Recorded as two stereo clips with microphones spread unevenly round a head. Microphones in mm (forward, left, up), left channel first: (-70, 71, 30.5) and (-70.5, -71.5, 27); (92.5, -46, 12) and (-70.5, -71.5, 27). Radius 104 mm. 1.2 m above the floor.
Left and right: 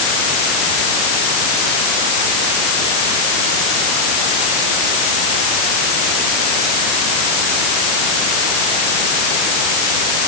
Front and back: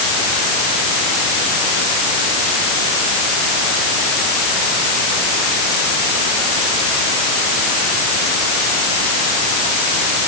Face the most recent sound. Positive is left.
No sound to turn to.